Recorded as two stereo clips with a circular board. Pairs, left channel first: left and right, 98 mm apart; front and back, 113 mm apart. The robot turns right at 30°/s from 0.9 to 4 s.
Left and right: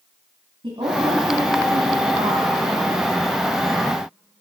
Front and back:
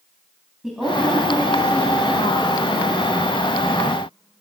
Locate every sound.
0.6 s a woman speaking: 95° right, 2.5 m; by 3.0 s 30° right, 2.5 m